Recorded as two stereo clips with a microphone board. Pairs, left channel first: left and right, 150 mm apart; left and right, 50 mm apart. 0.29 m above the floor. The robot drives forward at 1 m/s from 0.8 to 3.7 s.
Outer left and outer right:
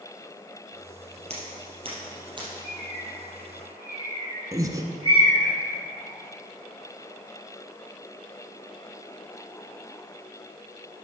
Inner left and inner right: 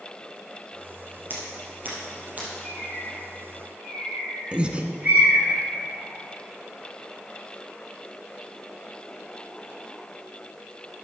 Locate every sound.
1.3 s scissors: 45° right (ahead or behind), 3 m; by 2.5 s 30° right (ahead or behind), 4 m
2.6 s a bird: 45° right (ahead or behind), 3 m; by 5.5 s 30° right (ahead or behind), 4 m
4.5 s breathing: 25° right (ahead or behind), 0.8 m